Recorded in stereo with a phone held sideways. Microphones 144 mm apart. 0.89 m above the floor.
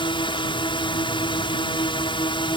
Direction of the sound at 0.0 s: 35° left (ahead or behind).